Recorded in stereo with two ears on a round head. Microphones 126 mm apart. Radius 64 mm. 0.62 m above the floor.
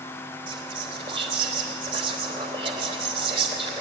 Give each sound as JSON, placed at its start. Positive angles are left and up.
{"t": 0.5, "sound": "whispering", "side_deg": -40, "distance_m": 2.5}